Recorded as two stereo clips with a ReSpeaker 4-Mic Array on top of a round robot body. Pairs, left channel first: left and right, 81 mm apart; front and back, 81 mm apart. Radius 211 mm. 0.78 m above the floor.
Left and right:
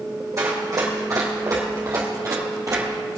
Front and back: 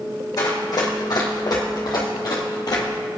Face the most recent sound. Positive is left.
turn(degrees=-40)